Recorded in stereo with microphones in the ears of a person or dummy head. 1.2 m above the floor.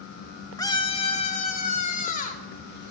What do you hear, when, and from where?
0.6 s a scream: 15° left (ahead or behind), 1.1 m; by 2.4 s 45° left (ahead or behind), 4 m